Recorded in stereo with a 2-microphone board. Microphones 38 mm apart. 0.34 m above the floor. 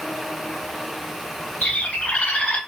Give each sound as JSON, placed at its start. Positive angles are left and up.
{"t": 1.6, "sound": "a bird", "side_deg": 35, "distance_m": 0.8}